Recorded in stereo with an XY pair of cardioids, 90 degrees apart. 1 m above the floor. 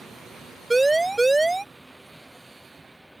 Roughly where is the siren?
Ahead.